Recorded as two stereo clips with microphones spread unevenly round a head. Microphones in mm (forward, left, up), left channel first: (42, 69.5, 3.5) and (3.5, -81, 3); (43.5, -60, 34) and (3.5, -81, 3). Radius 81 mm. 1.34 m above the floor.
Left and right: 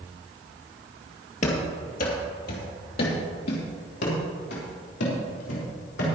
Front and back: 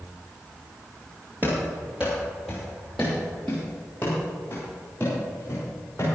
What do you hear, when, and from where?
1.4 s running footsteps: 110° left, 2 m; by 6.2 s 85° left, 5 m